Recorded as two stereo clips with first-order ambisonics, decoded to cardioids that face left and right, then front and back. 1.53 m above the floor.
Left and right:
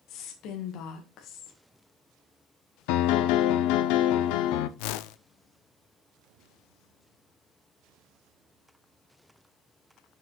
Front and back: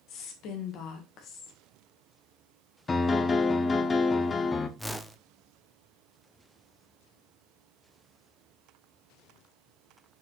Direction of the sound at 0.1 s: 45° left.